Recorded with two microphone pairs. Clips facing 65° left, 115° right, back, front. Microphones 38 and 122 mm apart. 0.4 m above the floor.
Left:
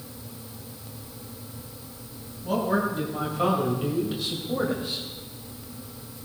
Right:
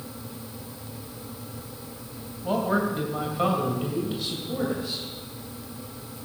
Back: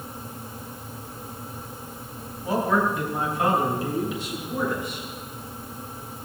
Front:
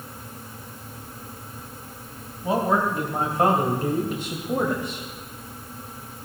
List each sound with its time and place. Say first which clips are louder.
2.4 s a man speaking: even, front 1 dB; 65° right, 2.5 m; by 5.0 s straight ahead, 2.5 m